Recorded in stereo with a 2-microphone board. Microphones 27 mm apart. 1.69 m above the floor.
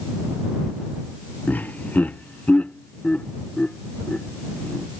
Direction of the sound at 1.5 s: 80° left.